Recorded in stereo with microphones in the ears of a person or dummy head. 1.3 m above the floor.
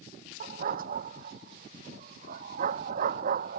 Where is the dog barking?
40° right (ahead or behind); by 3.6 s 45° right (ahead or behind).